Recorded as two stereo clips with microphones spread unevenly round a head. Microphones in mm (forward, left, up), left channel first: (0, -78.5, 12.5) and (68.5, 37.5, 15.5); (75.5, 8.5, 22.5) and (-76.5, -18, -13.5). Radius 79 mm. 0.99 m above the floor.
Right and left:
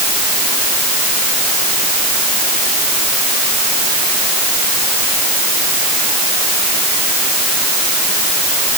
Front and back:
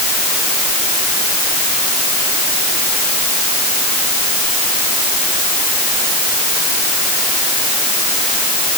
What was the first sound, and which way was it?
Only background noise.